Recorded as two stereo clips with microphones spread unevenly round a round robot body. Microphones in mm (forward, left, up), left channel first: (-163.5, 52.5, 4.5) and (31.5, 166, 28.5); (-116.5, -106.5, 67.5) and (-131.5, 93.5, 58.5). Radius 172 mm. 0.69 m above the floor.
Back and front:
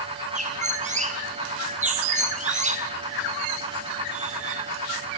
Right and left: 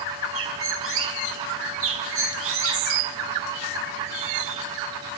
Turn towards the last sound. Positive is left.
turn(degrees=90)